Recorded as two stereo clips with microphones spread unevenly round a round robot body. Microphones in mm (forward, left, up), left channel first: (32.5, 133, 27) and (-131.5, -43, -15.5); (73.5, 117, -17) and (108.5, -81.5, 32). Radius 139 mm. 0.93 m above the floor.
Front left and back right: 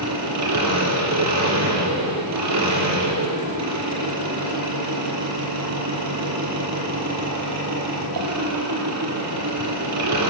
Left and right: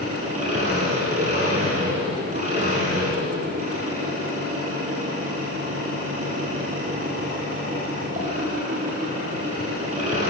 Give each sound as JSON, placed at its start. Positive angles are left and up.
{"t": 0.0, "sound": "an engine running", "azimuth_deg": -145, "distance_m": 7.0}